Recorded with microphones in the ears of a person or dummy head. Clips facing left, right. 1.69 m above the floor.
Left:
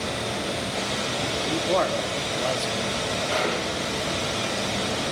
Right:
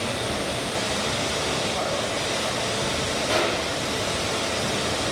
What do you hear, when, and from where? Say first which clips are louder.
0.0 s running water: right 1 dB; 70° right (ahead or behind), 5.5 m
1.4 s a man speaking: left 7 dB; 70° left (ahead or behind), 1.2 m
3.3 s a gunshot: right 3 dB; 85° right, 5 m